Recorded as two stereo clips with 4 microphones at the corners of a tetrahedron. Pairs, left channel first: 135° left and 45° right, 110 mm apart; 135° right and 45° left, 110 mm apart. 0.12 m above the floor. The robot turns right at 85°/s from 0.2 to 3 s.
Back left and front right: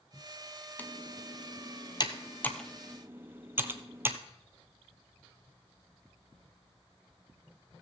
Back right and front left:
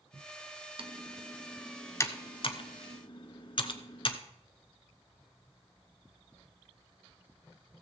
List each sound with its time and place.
0.8 s typing on a keyboard: 60° left, 0.8 m; by 4.2 s 110° right, 0.8 m